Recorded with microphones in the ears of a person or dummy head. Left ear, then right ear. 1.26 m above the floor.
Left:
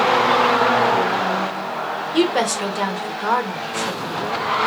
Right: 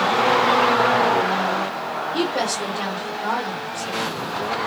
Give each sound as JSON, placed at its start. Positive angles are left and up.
{"t": 2.1, "sound": "a woman speaking", "side_deg": 50, "distance_m": 0.9}